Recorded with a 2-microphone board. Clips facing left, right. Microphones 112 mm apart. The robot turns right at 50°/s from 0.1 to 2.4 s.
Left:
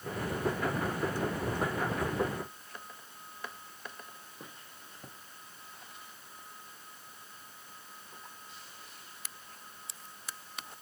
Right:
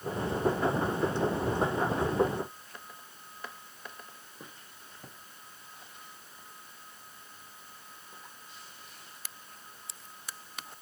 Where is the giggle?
I don't hear a giggle.